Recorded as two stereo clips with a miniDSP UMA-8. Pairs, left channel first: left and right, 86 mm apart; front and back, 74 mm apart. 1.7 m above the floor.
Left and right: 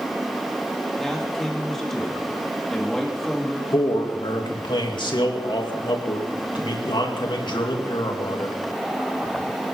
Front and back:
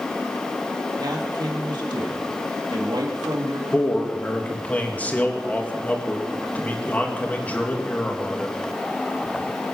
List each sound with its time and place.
1.0 s a man speaking: 175° left, 2.5 m
3.7 s a man speaking: 70° left, 2.5 m